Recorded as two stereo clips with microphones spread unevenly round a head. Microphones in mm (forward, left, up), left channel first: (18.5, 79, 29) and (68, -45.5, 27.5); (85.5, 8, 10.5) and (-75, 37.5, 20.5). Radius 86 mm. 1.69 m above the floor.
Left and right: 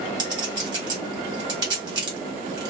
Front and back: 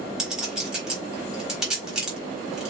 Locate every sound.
0.2 s a clink: 110° right, 0.9 m